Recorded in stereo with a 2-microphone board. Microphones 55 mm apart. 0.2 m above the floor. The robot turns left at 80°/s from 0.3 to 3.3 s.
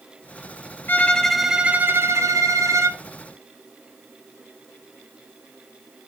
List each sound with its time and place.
0.9 s a violin: 40° left, 1.3 m; by 3.0 s 130° right, 1.3 m